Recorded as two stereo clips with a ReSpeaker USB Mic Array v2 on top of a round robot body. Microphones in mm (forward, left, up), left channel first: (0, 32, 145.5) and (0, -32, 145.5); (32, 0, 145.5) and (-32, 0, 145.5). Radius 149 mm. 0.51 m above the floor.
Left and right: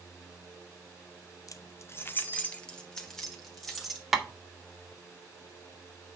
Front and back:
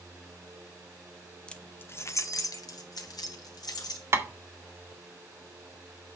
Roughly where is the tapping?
Behind.